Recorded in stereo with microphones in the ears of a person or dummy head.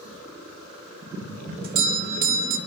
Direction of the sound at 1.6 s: 50° right (ahead or behind).